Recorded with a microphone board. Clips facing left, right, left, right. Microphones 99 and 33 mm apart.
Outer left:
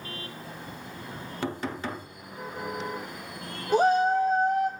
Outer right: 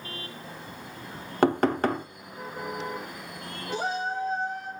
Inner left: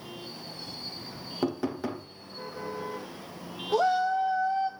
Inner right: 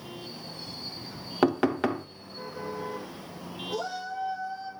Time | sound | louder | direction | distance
1.4 | knocking | outer right 10 dB, inner right 6 dB | 65° right (ahead or behind) | 0.6 m
3.7 | a shout | outer left 9 dB, inner left 10 dB | 55° left (ahead or behind) | 0.6 m